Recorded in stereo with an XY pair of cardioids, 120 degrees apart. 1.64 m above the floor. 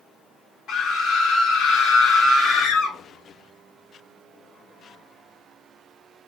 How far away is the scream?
About 2 m.